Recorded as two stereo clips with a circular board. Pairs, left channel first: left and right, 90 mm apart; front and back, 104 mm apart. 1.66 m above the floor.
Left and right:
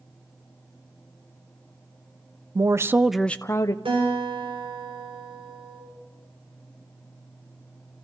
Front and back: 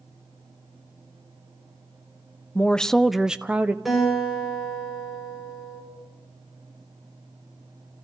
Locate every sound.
2.5 s a woman speaking: 75° right, 0.7 m; by 3.8 s 110° left, 0.7 m
3.9 s a guitar: 90° right, 8 m